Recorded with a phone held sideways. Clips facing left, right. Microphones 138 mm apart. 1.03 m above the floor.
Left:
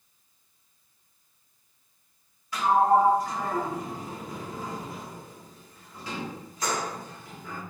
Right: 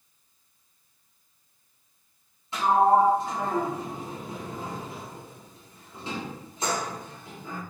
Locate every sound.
2.5 s a sliding door: 25° right (ahead or behind), 1.2 m